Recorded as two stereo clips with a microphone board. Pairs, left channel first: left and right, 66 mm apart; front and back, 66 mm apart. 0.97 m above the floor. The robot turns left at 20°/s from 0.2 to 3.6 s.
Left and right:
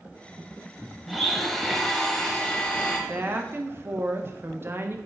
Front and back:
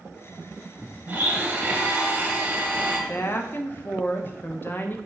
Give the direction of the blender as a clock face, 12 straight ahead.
6 o'clock.